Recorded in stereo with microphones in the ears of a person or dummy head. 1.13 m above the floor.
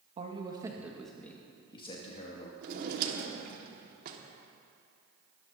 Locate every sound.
0.2 s a man speaking: 30° right (ahead or behind), 1.7 m; by 2.5 s 45° left (ahead or behind), 2.5 m
2.6 s a drawer: 50° right (ahead or behind), 1.8 m